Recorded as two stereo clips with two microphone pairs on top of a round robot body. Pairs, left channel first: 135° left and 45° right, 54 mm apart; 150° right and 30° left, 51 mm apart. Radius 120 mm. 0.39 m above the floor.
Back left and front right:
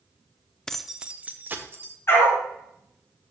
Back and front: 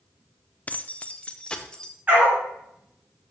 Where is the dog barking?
90° left, 2.0 m.